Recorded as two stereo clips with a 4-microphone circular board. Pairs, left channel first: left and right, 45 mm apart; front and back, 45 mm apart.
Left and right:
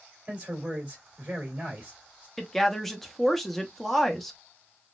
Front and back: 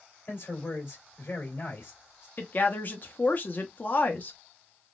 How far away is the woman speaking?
About 0.7 m.